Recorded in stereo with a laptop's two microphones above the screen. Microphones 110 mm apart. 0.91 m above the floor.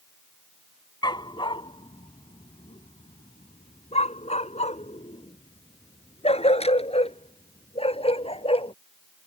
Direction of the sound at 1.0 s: 40° left (ahead or behind).